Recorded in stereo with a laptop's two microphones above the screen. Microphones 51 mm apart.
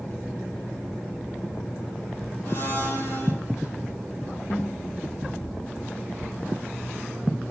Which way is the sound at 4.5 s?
65° left (ahead or behind).